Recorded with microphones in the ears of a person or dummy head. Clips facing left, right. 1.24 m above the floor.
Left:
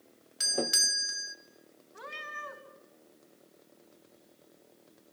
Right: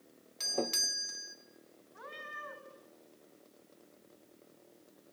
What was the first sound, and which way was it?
A doorbell, 10° left (ahead or behind).